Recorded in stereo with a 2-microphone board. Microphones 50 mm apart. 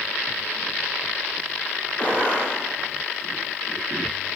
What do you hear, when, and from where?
2.0 s a gunshot: 35° left (ahead or behind), 1.4 m